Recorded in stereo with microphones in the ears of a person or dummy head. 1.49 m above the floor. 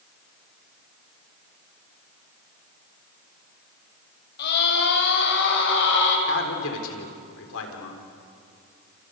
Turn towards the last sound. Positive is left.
turn(degrees=75)  # may be behind; listen again after turning